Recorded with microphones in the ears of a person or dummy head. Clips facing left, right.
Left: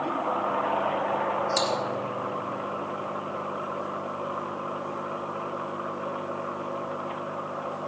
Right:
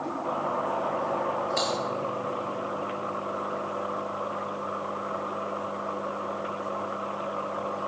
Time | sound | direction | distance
1.6 | typing on a keyboard | 55° left (ahead or behind) | 1.0 m